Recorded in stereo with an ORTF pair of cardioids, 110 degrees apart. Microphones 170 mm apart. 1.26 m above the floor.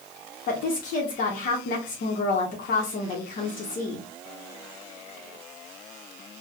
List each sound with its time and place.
0.5 s a woman speaking: 50° left, 0.9 m